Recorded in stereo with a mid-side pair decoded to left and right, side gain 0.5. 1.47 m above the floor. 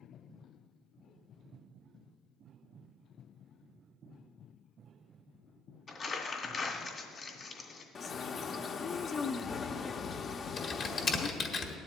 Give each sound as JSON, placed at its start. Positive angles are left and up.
{"t": 5.9, "sound": "crumpling", "azimuth_deg": 40, "distance_m": 2.0}
{"t": 8.0, "sound": "a bird", "azimuth_deg": 45, "distance_m": 0.7}
{"t": 10.6, "sound": "typing on a keyboard", "azimuth_deg": 45, "distance_m": 1.6}